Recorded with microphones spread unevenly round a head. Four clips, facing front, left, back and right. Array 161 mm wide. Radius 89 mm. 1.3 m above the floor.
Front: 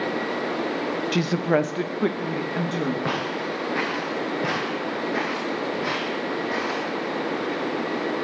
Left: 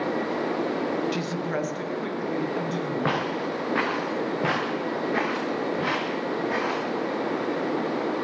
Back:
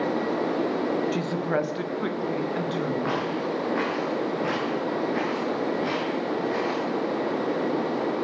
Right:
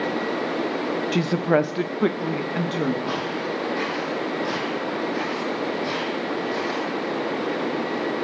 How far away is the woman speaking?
About 0.7 m.